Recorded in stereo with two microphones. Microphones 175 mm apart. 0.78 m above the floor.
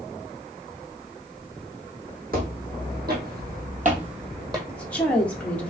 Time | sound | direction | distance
2.3 | footsteps | 55° right (ahead or behind) | 2 m
4.7 | a woman speaking | 5° left (ahead or behind) | 1.0 m